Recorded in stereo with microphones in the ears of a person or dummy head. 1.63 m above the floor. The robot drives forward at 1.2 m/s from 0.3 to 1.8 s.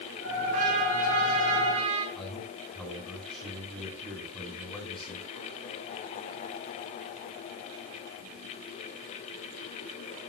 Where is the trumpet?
50° right (ahead or behind), 4 m; by 2.0 s 35° right (ahead or behind), 5 m.